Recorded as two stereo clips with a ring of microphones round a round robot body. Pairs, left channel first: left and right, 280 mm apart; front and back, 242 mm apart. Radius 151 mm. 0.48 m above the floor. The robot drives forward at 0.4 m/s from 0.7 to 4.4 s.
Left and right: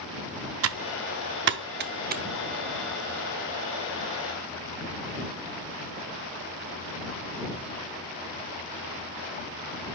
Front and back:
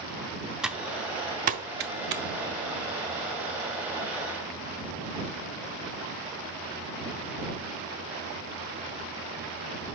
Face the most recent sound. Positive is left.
turn(degrees=-165)